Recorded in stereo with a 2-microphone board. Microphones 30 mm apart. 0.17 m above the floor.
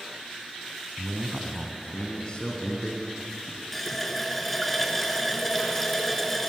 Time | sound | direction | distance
1.0 | a man speaking | 15° right (ahead or behind) | 1.4 m
3.7 | a running tap | 10° left (ahead or behind) | 1.3 m